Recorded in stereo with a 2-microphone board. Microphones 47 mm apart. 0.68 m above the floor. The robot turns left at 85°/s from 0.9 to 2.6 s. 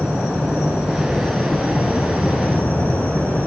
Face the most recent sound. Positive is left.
turn(degrees=55)